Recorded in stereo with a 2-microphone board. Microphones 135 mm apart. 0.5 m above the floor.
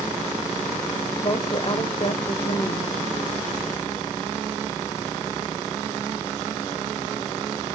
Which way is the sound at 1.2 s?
40° left (ahead or behind).